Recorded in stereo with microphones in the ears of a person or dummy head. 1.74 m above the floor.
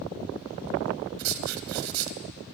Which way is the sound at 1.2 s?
80° right.